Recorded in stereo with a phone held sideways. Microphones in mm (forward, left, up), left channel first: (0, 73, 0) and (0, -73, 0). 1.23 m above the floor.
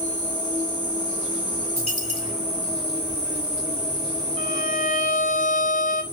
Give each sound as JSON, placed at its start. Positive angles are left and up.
{"t": 0.0, "sound": "an insect", "side_deg": -40, "distance_m": 1.2}
{"t": 1.8, "sound": "a dropped coin", "side_deg": 45, "distance_m": 1.5}
{"t": 4.4, "sound": "a violin", "side_deg": 65, "distance_m": 0.7}